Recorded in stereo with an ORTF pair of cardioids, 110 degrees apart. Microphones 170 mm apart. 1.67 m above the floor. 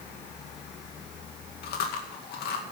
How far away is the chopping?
No chopping in this recording.